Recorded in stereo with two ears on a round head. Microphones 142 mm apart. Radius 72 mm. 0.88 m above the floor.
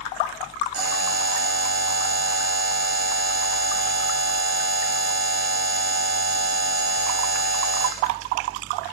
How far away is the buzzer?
About 1.0 m.